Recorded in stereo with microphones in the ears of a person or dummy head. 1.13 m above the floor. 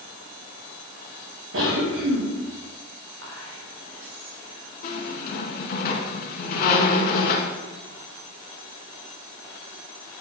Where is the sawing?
No sawing in this recording.